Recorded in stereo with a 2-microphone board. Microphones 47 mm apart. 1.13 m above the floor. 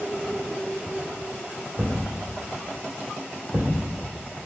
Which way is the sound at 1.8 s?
55° right (ahead or behind).